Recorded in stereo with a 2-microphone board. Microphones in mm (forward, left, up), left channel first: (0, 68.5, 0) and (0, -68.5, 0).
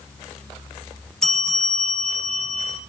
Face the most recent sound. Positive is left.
turn(degrees=5)  # may be behind; listen again after turning